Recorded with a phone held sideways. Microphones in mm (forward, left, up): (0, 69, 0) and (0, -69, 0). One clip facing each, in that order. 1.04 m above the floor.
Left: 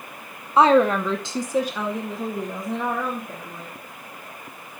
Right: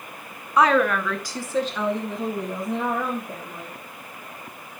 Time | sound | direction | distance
0.6 | a woman speaking | 25° left (ahead or behind) | 0.9 m